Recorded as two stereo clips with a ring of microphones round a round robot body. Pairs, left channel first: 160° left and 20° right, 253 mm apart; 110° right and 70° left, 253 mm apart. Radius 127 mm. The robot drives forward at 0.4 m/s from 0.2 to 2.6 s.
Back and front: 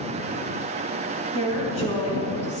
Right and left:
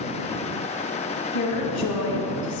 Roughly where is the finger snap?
I don't hear a finger snap.